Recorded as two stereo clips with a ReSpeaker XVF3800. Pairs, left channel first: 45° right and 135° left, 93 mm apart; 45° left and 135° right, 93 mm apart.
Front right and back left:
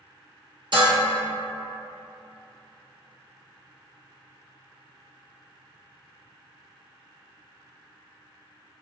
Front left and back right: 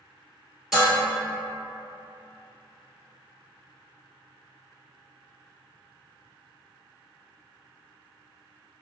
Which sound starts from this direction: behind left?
Dishes clattering, at 0.7 s.